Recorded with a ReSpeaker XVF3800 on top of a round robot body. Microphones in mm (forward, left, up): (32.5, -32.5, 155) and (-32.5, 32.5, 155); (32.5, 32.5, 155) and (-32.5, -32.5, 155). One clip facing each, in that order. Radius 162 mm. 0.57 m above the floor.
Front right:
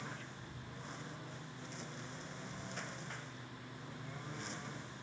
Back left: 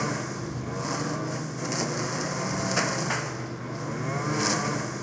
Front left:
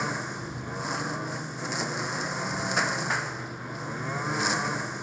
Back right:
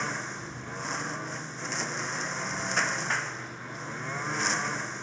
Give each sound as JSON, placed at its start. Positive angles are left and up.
{"t": 0.0, "sound": "a lawn mower", "azimuth_deg": 125}